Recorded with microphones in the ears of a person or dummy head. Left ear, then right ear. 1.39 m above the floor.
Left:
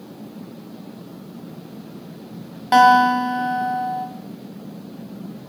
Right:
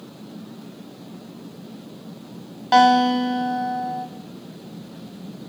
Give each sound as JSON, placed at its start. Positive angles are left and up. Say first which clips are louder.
{"t": 2.7, "sound": "a guitar", "louder": "left 3 dB", "side_deg": 20, "distance_m": 1.8}